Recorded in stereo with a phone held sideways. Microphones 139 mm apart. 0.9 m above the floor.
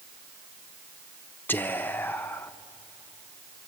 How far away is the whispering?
About 0.6 m.